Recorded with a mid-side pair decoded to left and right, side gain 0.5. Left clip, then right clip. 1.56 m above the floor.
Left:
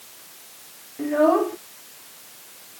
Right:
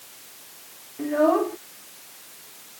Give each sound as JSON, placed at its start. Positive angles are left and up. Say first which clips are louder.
{"t": 1.0, "sound": "a child speaking", "louder": "left 2 dB", "azimuth_deg": 10}